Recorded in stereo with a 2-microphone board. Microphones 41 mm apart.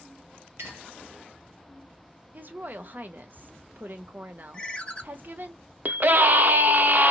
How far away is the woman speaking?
About 0.7 m.